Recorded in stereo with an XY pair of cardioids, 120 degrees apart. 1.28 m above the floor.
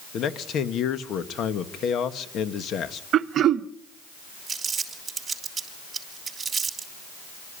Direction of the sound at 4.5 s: 30° right.